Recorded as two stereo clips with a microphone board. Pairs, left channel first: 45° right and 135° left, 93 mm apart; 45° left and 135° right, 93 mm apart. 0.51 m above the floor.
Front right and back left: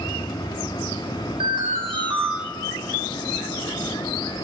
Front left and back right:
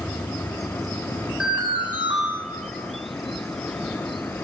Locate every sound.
1.4 s an alarm: 150° left, 4.5 m